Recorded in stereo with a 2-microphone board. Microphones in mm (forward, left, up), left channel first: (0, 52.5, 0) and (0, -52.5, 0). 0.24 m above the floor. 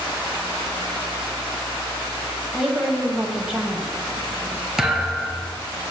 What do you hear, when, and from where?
2.5 s a woman speaking: 10° right (ahead or behind), 1.3 m
4.8 s a thud: 5° right (ahead or behind), 1.4 m